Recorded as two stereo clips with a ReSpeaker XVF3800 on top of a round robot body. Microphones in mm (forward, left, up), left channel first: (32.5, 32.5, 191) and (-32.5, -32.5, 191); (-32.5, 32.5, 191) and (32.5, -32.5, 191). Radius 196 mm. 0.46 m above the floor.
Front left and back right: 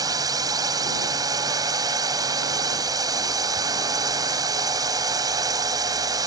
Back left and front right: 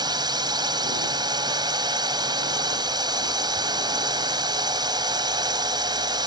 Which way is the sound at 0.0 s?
85° right.